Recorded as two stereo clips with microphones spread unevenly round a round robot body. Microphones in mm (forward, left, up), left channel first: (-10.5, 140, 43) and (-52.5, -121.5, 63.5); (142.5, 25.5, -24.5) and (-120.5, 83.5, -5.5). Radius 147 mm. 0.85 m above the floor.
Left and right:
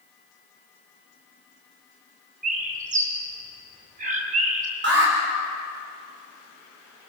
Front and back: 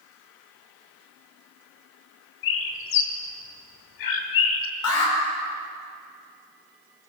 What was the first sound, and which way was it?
A bird, 35° right.